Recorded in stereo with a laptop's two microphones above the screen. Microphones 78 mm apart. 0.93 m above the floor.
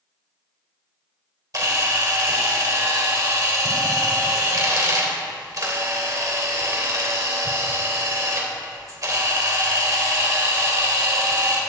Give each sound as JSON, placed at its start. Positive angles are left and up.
{"t": 1.5, "sound": "a camera shutter", "side_deg": -50, "distance_m": 3.0}